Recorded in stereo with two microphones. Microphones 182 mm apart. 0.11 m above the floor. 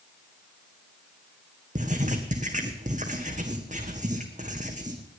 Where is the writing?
40° right (ahead or behind), 1.7 m.